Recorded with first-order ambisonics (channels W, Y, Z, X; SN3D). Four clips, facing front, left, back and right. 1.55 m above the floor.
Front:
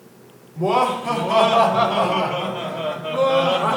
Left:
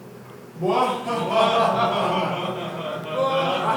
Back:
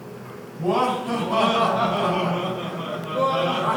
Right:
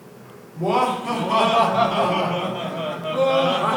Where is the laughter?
25° right, 5 m; by 3.8 s 35° right, 3 m.